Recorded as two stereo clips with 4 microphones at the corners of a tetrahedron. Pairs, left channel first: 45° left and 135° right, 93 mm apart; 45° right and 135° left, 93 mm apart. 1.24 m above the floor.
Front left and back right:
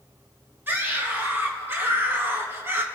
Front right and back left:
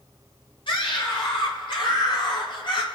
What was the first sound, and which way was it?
A scream, 70° right.